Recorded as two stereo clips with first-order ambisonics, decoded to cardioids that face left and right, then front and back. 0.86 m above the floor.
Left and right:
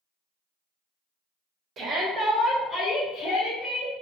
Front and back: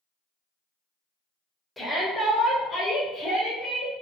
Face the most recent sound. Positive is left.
turn(degrees=55)